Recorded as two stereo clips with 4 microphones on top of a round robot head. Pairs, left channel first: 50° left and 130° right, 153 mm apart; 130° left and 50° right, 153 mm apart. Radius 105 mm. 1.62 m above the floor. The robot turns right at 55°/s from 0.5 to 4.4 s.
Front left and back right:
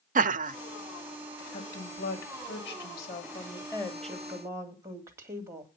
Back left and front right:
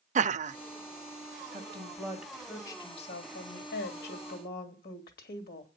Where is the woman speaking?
5° right, 2.5 m; by 5.7 s 155° left, 2.5 m.